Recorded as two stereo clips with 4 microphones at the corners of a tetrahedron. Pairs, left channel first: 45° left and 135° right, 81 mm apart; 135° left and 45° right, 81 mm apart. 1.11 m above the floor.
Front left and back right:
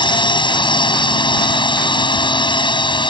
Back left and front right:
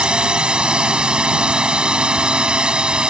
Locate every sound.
0.0 s a drone: 35° left